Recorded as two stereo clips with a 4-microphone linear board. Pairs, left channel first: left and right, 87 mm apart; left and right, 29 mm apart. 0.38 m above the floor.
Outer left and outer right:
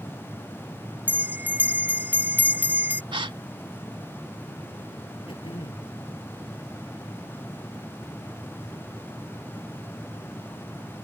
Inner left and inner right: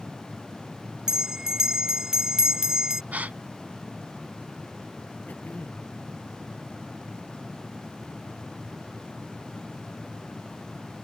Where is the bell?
20° right (ahead or behind).